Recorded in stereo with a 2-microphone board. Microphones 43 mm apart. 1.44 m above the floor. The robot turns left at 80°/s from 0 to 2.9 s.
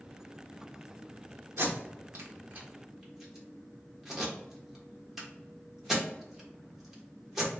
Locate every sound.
1.6 s tape being pulled: 65° right (ahead or behind), 1.3 m; by 7.5 s 10° right (ahead or behind), 1.3 m